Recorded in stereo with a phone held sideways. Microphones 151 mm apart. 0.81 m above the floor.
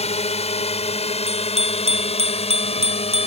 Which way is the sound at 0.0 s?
45° left (ahead or behind).